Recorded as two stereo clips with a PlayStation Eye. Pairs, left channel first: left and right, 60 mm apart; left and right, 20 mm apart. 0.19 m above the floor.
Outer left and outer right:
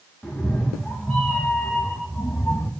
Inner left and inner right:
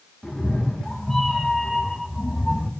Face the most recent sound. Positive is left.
turn(degrees=15)  # may be behind; listen again after turning